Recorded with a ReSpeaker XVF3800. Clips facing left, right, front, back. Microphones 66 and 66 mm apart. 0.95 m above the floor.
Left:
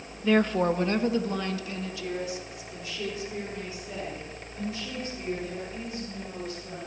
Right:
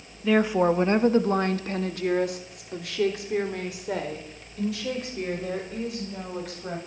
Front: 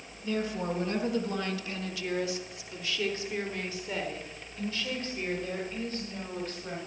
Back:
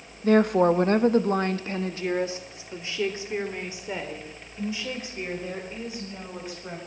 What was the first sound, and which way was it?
A woman speaking, straight behind.